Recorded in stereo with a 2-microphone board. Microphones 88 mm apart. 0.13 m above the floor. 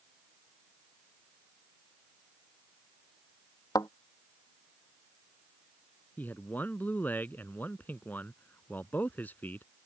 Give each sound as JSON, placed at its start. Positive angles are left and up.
{"t": 3.8, "sound": "a thud", "side_deg": 45}
{"t": 6.2, "sound": "a man speaking", "side_deg": 20}